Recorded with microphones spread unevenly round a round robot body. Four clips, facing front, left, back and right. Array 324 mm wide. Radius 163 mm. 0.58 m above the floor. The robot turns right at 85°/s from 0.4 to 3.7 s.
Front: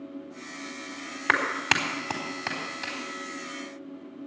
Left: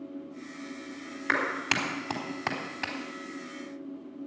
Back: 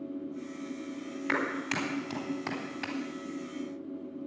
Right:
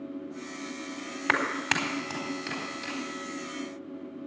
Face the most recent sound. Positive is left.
turn(degrees=160)